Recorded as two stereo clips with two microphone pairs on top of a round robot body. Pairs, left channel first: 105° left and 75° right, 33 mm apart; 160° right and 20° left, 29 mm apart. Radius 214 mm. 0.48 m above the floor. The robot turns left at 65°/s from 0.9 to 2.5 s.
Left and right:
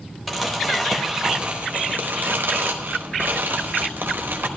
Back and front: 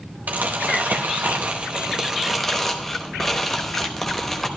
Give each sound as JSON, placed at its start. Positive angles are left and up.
{"t": 0.3, "sound": "crumpling", "azimuth_deg": 25, "distance_m": 1.0}